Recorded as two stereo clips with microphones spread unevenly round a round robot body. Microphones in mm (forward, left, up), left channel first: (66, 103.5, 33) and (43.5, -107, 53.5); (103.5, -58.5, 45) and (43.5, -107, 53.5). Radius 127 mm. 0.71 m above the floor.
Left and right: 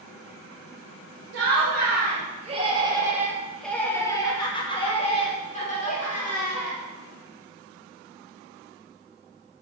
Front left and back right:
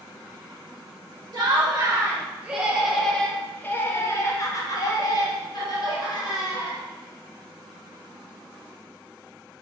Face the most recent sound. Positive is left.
turn(degrees=35)